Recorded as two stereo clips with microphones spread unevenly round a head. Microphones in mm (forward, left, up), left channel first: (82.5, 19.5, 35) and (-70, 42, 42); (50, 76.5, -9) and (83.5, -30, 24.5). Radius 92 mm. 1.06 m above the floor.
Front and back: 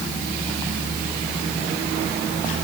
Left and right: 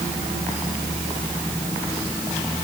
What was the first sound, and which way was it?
Only background noise.